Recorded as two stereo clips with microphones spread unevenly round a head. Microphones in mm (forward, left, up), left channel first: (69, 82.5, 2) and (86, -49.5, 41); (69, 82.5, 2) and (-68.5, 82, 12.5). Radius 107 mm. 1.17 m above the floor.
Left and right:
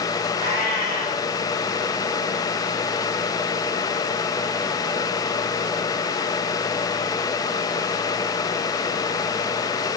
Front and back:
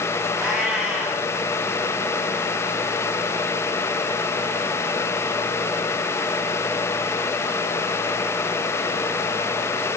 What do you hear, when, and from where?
0.4 s a cat meowing: 90° left, 5 m